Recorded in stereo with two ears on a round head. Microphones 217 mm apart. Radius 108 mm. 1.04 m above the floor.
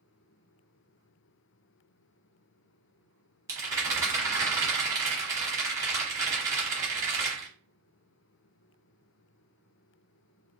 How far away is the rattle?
About 1.1 m.